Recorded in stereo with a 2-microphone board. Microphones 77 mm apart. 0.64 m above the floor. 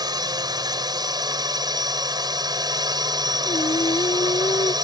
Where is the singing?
85° left.